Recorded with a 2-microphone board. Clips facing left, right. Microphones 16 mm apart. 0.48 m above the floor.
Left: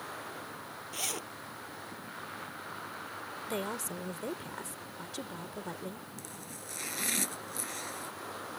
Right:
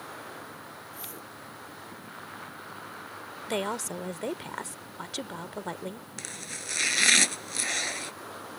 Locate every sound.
0.9 s a zipper: 85° left
3.5 s a woman speaking: 45° right (ahead or behind)
6.2 s chopping: 70° right (ahead or behind)